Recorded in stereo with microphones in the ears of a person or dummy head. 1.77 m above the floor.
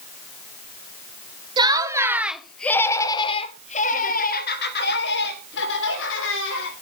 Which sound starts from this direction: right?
Laughter, at 1.6 s.